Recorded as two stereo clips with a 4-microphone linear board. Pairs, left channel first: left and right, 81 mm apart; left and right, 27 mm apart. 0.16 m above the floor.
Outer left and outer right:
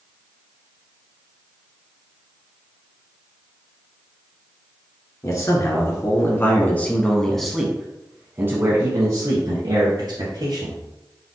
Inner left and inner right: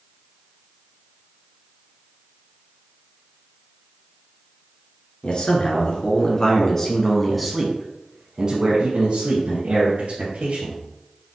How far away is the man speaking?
About 1.8 m.